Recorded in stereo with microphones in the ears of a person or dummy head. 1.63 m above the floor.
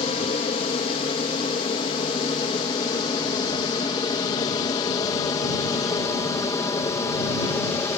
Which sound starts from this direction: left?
An aircraft, at 0.0 s.